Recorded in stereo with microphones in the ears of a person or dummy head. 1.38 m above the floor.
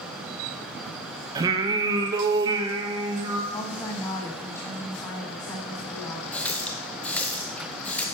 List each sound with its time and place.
1.4 s singing: 20° right (ahead or behind), 1.0 m
3.5 s a woman speaking: 25° left (ahead or behind), 1.6 m
6.3 s a running tap: 10° left (ahead or behind), 0.8 m